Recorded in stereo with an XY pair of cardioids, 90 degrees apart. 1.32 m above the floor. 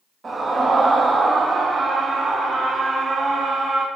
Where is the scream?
30° right, 2 m.